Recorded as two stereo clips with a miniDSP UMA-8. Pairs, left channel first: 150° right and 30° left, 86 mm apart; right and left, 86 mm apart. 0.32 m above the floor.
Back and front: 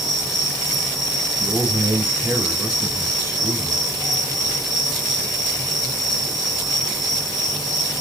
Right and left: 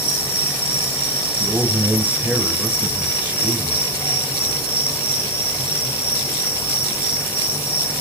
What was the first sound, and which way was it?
An insect, 60° right.